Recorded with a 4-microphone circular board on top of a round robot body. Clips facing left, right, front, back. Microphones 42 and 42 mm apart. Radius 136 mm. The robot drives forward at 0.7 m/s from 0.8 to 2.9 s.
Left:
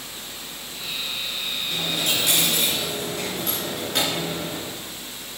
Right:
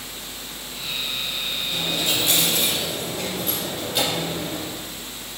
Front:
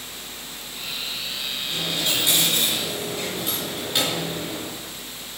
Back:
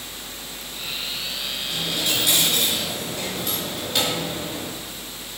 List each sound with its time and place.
1.7 s a dropped coin: 60° left, 4.5 m; by 4.7 s 70° left, 4 m